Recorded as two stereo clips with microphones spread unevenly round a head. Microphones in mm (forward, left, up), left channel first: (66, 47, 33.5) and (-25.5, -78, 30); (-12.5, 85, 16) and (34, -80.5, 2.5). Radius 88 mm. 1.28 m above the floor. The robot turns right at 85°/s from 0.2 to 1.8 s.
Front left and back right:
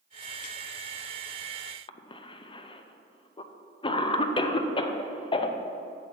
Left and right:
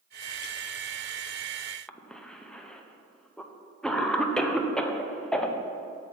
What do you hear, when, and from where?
1.9 s a cough: 15° left, 0.5 m